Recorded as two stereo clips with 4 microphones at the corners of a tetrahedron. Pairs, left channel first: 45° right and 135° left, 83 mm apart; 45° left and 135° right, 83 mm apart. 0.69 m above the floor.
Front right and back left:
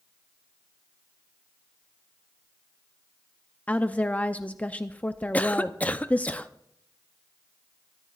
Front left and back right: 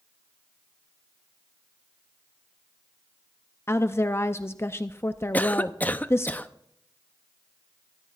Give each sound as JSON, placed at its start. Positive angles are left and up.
{"t": 3.7, "sound": "a woman speaking", "azimuth_deg": 10, "distance_m": 0.5}
{"t": 5.3, "sound": "a cough", "azimuth_deg": 0, "distance_m": 0.6}